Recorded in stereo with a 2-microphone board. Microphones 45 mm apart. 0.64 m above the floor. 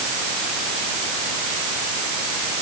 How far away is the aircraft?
I don't hear an aircraft.